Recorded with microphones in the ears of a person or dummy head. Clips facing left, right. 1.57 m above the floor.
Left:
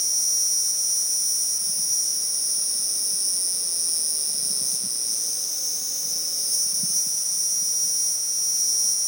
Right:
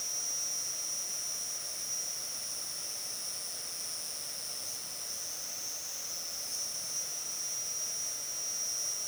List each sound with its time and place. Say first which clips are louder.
0.0 s an insect: left 3 dB; 70° left (ahead or behind)